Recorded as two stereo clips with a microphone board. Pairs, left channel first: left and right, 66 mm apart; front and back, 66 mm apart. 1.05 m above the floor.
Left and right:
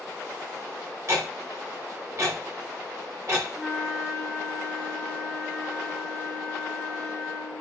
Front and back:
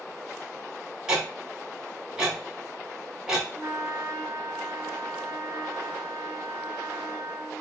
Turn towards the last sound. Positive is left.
turn(degrees=180)